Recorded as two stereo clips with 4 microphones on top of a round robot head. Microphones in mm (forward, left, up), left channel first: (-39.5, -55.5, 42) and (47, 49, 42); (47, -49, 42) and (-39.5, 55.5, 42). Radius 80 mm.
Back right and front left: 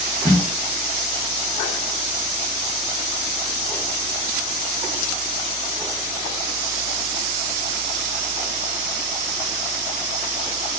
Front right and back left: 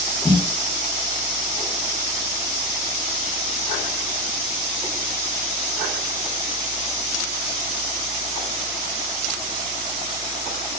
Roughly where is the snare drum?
Behind right.